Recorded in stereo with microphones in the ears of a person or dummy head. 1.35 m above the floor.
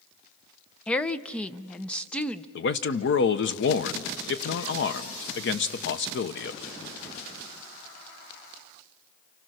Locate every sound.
0.9 s a woman speaking: 10° left (ahead or behind), 0.5 m
2.5 s a man speaking: 60° left (ahead or behind), 1.0 m